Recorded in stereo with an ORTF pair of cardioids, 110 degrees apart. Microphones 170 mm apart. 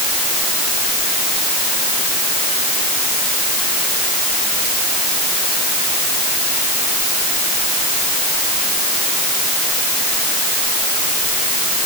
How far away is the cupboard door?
No cupboard door in this recording.